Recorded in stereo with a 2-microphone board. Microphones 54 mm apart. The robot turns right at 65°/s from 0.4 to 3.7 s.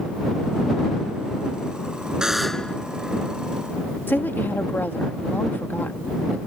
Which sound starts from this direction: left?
A woman speaking, at 4.1 s.